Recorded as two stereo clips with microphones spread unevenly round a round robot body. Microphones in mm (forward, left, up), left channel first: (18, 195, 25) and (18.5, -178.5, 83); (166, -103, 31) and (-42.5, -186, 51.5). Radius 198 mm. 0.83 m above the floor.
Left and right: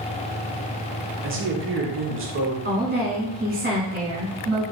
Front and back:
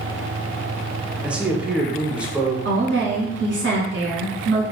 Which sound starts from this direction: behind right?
A woman speaking, at 2.6 s.